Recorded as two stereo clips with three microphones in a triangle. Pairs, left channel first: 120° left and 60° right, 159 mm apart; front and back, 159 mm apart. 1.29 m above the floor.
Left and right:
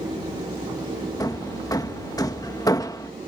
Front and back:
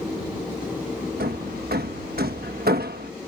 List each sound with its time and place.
1.2 s hammering: 170° right